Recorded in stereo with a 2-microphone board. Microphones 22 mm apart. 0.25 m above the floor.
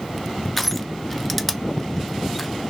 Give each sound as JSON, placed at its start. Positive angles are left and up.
{"t": 0.6, "sound": "crushing", "side_deg": 5, "distance_m": 0.5}